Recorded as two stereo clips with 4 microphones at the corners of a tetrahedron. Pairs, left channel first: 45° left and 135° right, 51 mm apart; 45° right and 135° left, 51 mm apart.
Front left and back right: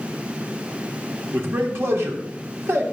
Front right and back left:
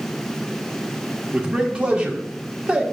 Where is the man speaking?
160° right, 1.5 m.